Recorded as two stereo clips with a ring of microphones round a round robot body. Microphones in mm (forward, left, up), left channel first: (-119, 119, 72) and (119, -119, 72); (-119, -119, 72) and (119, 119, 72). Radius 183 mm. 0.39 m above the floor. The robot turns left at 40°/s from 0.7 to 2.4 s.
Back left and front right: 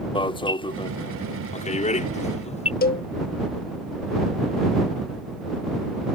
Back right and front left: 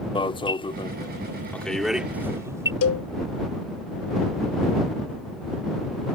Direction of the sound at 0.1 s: Straight behind.